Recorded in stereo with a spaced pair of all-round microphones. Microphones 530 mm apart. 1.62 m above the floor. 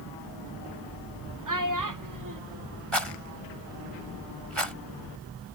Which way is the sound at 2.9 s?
60° right (ahead or behind).